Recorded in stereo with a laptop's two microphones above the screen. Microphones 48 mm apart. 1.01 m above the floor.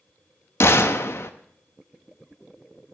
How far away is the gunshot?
About 0.7 m.